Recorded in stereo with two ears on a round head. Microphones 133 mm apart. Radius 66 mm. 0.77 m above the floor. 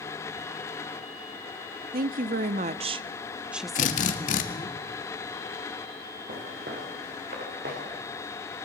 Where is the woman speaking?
65° right (ahead or behind), 1.1 m; by 4.8 s 30° left (ahead or behind), 1.1 m.